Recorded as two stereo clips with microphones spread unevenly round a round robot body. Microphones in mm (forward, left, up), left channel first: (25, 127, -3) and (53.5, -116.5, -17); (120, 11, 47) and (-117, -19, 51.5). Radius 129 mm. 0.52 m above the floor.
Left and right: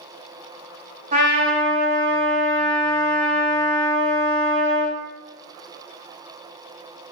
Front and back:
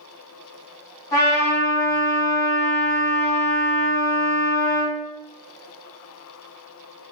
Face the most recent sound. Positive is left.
turn(degrees=-60)